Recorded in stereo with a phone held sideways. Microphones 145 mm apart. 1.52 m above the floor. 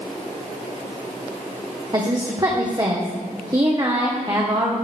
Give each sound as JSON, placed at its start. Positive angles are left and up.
{"t": 1.9, "sound": "a woman speaking", "side_deg": -25, "distance_m": 1.3}